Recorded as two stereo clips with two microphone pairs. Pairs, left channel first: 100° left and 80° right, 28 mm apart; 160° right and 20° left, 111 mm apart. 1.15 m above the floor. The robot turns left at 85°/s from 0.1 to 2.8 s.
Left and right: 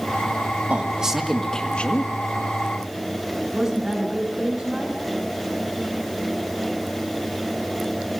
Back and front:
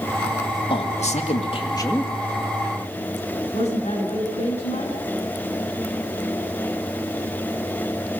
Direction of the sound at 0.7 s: 125° right.